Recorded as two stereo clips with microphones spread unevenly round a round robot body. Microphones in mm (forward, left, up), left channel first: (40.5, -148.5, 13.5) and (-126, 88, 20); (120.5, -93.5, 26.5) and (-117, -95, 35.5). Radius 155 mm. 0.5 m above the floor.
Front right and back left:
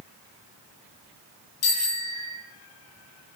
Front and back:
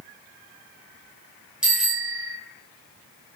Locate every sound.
1.6 s a bicycle bell: 95° right, 9 m